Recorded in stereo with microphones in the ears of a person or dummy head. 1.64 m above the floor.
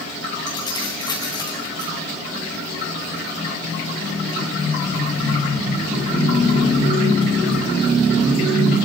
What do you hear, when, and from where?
0.5 s keys jangling: 30° left (ahead or behind), 2.5 m